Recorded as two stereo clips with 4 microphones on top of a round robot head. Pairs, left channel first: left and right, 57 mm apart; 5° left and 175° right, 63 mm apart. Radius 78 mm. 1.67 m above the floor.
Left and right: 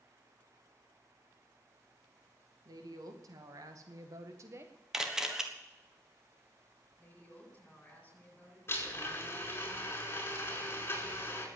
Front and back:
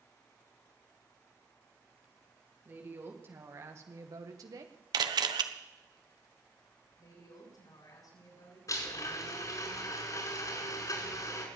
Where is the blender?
40° left, 5 m.